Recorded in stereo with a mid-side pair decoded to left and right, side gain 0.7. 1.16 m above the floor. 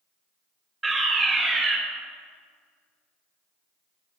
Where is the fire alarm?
15° right, 5 m.